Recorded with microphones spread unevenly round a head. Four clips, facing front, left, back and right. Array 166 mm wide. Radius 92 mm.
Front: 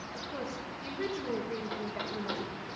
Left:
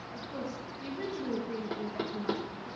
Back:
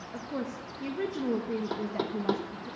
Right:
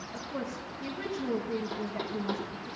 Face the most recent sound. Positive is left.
turn(degrees=165)